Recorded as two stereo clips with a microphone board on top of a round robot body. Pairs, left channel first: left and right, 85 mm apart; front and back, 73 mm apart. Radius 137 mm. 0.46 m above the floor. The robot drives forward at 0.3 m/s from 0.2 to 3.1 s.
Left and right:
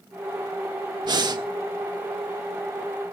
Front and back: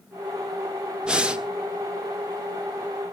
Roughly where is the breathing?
Right.